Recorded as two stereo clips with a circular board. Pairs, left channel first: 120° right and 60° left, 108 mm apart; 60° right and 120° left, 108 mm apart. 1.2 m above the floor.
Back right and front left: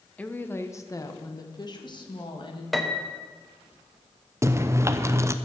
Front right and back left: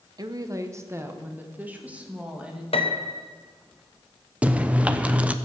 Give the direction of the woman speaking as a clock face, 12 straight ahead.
7 o'clock.